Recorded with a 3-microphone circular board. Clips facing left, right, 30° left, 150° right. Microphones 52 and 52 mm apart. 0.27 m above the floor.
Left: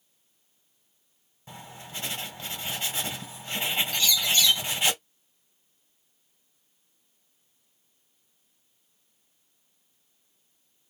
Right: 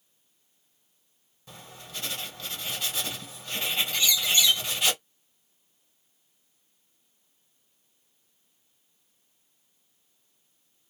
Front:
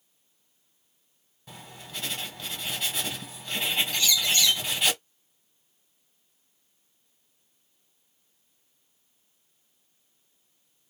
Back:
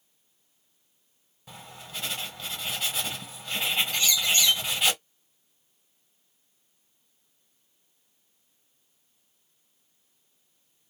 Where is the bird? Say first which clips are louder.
Right 1 dB, even; 130° right, 1.3 m.